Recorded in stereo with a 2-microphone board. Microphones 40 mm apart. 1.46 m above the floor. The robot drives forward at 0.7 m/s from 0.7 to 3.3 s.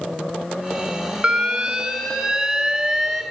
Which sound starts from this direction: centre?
An alarm, at 1.2 s.